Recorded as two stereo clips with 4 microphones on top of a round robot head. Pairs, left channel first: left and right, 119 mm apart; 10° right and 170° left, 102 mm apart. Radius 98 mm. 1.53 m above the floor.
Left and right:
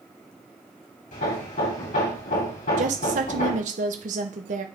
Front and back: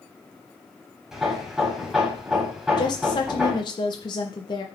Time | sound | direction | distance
1.1 | hammering | 90° left | 3.5 m
2.8 | a woman speaking | 65° right | 1.0 m